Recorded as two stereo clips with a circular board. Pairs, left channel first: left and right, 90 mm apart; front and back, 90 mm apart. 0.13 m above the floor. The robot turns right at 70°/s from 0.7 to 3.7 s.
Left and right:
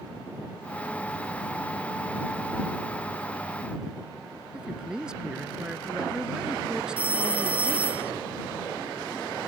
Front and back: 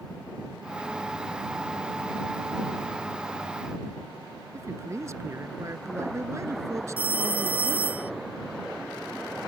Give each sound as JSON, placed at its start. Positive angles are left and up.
{"t": 4.5, "sound": "a man speaking", "azimuth_deg": -165}
{"t": 7.0, "sound": "a phone ringing", "azimuth_deg": -140}